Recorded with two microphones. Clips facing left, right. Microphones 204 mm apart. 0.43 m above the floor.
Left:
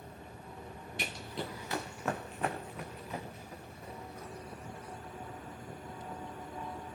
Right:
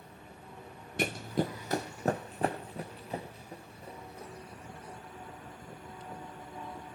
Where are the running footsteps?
50° right (ahead or behind), 0.6 m; by 5.0 s 30° right (ahead or behind), 5 m.